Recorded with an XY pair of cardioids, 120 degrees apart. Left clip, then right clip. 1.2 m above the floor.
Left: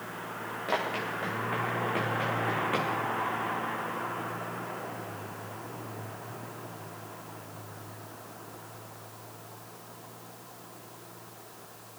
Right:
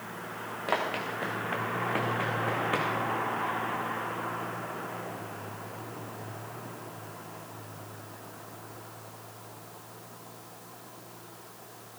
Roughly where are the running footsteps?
Ahead right.